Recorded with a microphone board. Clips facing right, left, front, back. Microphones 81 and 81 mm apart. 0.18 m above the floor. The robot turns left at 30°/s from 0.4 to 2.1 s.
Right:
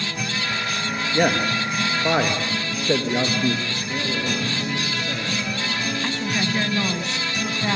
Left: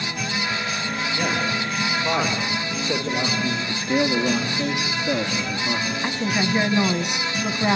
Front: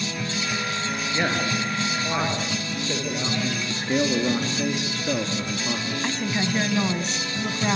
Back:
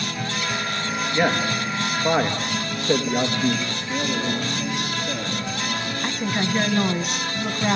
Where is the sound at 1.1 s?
105° right, 3.5 m; by 3.6 s 135° right, 3.5 m.